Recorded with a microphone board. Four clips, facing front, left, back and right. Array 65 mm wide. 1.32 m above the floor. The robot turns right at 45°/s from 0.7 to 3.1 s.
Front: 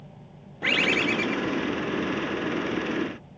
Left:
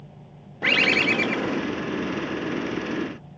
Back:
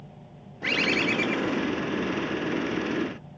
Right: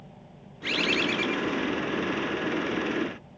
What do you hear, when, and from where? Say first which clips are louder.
0.6 s a bird: left 6 dB, front 1 dB; 70° left; by 1.6 s 110° left